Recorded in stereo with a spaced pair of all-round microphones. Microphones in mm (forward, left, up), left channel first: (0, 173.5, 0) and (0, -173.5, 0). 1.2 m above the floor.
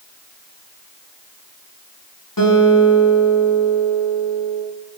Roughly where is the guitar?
Left.